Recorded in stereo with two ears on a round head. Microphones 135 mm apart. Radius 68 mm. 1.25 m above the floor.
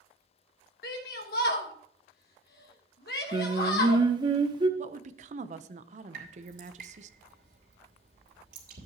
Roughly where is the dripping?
Right.